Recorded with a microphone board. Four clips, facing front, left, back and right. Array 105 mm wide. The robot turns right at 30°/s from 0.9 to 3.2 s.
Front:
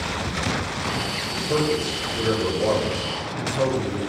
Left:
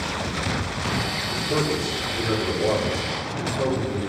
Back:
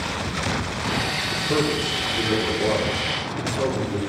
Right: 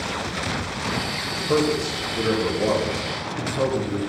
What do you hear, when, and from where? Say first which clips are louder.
1.3 s a man speaking: right 4 dB, front 1 dB; 115° right, 0.7 m; by 4.0 s 55° right, 0.7 m